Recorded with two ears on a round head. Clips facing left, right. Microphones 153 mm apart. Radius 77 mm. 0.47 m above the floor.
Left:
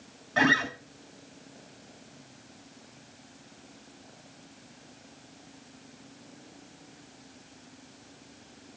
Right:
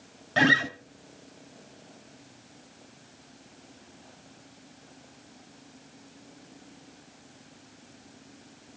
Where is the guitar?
35° right (ahead or behind), 1.1 m.